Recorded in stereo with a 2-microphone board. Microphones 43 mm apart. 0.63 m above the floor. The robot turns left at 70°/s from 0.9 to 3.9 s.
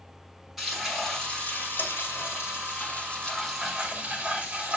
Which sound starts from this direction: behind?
Frying, at 0.6 s.